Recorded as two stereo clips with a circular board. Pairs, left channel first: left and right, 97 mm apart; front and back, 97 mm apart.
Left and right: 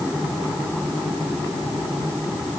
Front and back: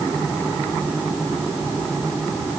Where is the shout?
I don't hear a shout.